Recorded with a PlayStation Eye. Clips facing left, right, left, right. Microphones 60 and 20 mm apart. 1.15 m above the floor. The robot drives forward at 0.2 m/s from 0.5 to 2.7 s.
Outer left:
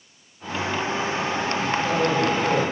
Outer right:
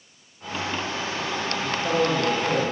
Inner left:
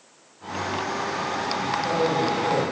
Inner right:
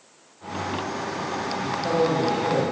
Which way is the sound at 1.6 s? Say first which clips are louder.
Even, inner right 2 dB; 45° right (ahead or behind).